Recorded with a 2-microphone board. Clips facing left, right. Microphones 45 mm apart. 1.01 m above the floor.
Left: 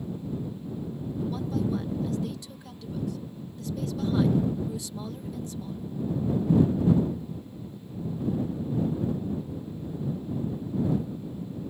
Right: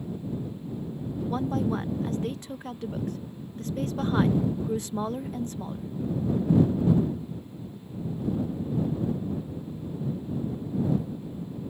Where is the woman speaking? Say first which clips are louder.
Right 3 dB; 45° right (ahead or behind).